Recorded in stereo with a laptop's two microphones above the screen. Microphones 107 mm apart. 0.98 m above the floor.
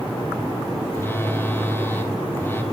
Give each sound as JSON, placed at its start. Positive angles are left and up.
{"t": 0.9, "sound": "a phone buzzing", "side_deg": 20, "distance_m": 0.5}